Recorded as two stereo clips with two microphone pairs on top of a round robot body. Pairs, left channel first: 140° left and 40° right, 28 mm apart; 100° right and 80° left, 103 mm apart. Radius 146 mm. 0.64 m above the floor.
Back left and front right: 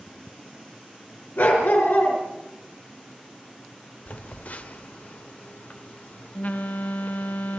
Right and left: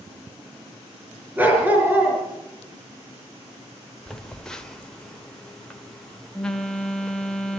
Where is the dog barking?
155° left, 4.5 m.